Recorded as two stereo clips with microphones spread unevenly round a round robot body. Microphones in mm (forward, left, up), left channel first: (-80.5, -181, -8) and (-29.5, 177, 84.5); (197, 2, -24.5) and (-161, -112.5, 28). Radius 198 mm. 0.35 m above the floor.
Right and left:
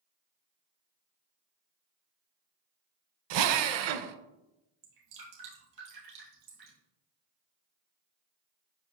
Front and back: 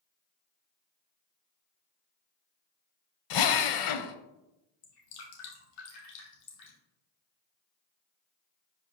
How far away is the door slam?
No door slam in this recording.